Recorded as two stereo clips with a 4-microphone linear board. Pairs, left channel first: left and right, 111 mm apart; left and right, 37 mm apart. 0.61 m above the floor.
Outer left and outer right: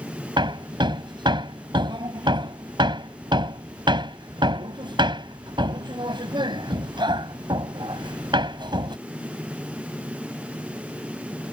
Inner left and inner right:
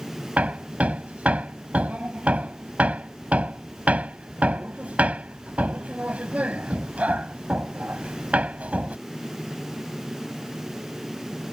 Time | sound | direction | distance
0.4 | hammering | 45° right (ahead or behind) | ?